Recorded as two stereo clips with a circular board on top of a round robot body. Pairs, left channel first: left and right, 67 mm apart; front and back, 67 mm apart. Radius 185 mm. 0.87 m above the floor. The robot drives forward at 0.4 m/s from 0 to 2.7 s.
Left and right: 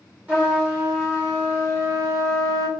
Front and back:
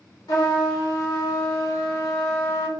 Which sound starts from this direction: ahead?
A trumpet, at 0.3 s.